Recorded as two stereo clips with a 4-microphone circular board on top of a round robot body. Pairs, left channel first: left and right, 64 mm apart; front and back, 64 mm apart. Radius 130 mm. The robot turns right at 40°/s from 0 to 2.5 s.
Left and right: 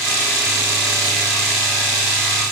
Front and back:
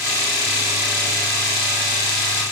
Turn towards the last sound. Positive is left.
No sound to turn to.